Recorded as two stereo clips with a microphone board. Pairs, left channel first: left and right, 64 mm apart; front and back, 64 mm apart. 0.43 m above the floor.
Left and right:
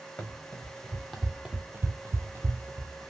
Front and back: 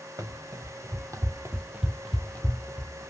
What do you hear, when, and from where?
0.2 s running footsteps: 160° left, 1.3 m; by 3.1 s 50° right, 1.1 m